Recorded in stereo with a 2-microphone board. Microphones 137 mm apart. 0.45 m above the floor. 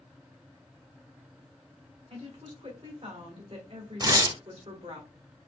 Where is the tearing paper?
30° right (ahead or behind), 0.7 m.